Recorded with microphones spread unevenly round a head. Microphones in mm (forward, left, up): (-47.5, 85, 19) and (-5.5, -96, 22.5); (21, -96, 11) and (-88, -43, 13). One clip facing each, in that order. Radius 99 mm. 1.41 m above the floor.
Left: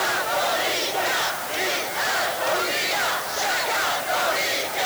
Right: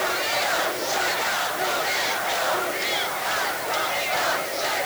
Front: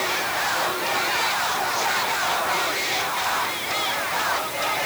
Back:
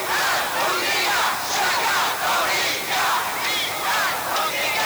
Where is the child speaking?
I don't hear a child speaking.